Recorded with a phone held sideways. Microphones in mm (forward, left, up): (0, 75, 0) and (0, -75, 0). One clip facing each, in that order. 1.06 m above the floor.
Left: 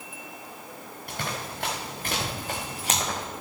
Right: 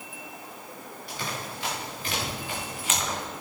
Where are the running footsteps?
60° left (ahead or behind), 5 m; by 3.2 s 30° left (ahead or behind), 3 m.